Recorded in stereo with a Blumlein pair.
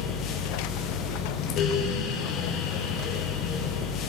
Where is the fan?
30° left, 0.8 m.